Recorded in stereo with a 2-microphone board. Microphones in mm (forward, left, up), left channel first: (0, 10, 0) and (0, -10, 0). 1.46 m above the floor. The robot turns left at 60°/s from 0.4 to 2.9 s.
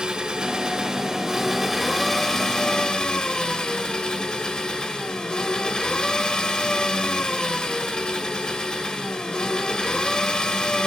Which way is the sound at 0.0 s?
100° right.